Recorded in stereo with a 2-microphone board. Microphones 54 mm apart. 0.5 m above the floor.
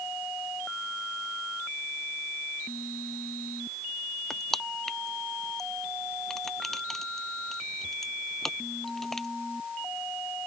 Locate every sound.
4.3 s crushing: 5° left (ahead or behind)